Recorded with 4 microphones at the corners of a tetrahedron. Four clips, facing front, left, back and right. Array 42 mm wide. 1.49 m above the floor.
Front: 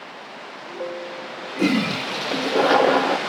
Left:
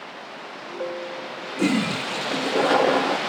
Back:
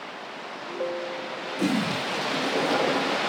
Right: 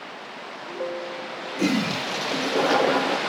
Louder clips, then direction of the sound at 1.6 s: Left 1 dB, front 5 dB; 15° left.